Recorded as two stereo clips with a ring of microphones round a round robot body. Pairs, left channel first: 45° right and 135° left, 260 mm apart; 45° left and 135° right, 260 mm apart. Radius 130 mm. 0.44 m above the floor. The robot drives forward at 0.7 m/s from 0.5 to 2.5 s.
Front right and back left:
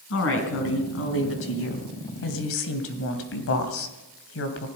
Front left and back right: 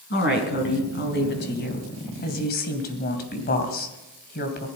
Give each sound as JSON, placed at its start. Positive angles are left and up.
{"t": 0.1, "sound": "a woman speaking", "azimuth_deg": -5, "distance_m": 3.5}